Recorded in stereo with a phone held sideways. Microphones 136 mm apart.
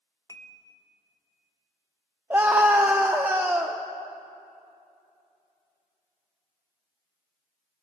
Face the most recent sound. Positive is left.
turn(degrees=-15)  # may be behind; listen again after turning